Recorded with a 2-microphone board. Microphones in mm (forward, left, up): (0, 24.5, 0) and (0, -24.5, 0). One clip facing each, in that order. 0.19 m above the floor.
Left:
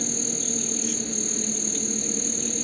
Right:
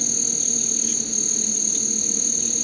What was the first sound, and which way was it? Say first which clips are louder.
An insect: left 2 dB; 15° left (ahead or behind).